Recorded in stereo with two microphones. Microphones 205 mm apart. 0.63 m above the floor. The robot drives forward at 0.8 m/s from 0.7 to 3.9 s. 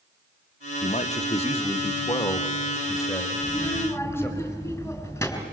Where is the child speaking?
15° left (ahead or behind), 4 m.